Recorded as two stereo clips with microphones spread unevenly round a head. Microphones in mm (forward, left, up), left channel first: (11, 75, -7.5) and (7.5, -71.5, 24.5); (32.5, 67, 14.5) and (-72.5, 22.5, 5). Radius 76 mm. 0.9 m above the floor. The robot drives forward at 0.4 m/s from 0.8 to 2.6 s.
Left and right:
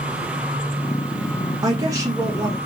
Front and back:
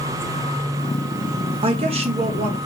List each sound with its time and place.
1.6 s a woman speaking: 160° right, 0.7 m; by 2.6 s 170° right, 1.0 m